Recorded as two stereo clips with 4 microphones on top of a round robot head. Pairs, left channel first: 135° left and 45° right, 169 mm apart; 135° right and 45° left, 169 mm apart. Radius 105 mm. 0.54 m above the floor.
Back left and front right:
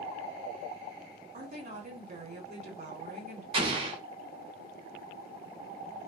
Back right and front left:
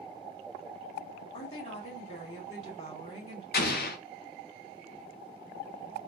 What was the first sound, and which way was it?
A woman speaking, 85° right.